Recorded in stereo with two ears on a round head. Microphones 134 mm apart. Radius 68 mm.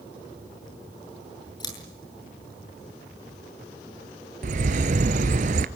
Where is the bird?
55° right (ahead or behind), 1.2 m.